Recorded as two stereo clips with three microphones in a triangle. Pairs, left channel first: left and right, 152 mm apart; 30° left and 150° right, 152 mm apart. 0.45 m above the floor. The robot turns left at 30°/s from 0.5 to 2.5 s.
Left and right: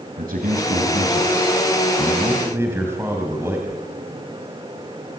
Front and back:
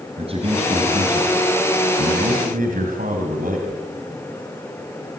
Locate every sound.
0.2 s a man speaking: 105° right, 3 m; by 3.8 s 165° right, 3 m